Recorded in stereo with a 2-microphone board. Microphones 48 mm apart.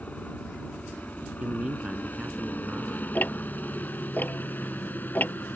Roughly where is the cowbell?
I don't hear a cowbell.